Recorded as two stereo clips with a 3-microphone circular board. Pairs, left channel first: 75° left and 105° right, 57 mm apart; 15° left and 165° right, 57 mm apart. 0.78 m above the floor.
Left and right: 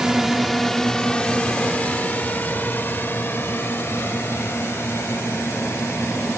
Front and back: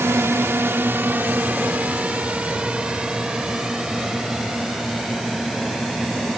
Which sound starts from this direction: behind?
A drone, at 0.0 s.